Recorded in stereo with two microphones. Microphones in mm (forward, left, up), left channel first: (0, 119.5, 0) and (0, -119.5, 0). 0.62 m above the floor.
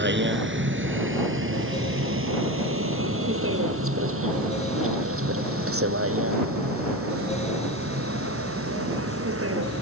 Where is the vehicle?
50° right (ahead or behind); by 9.8 s 70° right (ahead or behind).